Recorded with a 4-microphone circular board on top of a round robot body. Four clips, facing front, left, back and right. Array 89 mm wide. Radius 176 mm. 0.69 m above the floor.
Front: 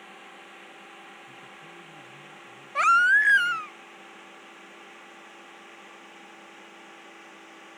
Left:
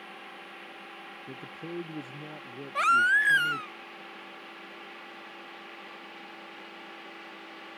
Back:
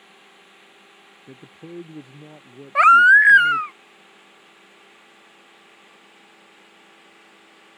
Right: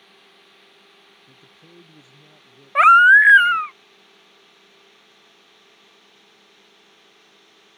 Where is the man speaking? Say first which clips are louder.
Left 13 dB, back 5 dB; 145° left.